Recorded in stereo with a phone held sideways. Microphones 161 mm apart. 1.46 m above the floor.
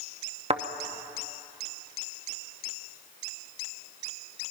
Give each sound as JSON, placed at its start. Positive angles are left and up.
{"t": 0.5, "sound": "a thud", "side_deg": -35, "distance_m": 0.9}